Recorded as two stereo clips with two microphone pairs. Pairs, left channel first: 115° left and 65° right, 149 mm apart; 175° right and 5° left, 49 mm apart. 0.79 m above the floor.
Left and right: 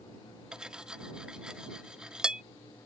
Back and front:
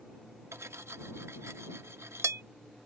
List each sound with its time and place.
0.5 s cutlery clinking: 20° left